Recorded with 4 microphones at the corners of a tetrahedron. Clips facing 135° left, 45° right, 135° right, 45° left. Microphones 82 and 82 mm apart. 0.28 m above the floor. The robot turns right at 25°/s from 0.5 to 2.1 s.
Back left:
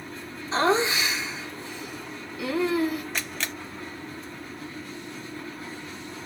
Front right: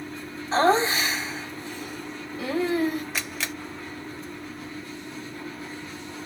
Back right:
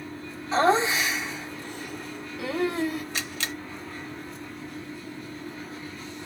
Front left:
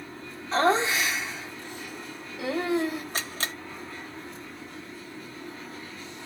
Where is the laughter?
50° right, 1.9 m; by 3.0 s 10° right, 1.9 m.